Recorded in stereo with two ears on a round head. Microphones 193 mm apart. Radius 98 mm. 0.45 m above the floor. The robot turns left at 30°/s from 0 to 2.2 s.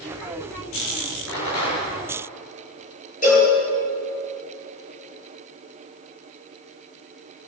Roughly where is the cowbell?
Left.